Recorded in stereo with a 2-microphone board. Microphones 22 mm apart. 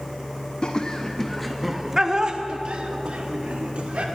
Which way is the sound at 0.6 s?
40° left (ahead or behind).